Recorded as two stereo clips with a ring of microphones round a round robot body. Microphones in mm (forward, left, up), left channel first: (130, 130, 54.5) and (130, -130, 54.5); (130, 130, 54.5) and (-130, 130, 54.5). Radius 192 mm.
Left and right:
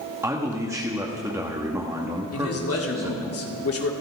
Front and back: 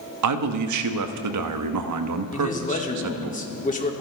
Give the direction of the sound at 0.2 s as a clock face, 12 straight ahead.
6 o'clock.